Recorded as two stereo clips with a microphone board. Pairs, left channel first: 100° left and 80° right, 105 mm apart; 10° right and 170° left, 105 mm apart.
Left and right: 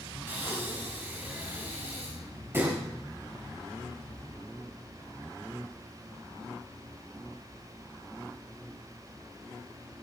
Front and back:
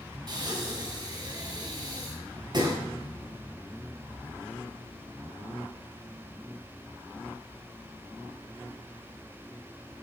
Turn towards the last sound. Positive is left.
turn(degrees=-145)